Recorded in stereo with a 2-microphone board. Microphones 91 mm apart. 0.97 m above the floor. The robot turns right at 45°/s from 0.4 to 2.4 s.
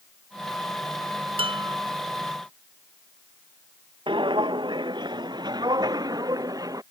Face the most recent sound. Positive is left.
turn(degrees=-40)  # may be behind; listen again after turning